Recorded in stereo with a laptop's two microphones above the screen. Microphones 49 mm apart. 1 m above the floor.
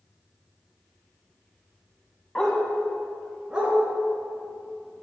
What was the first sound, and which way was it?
A dog barking, 15° left (ahead or behind).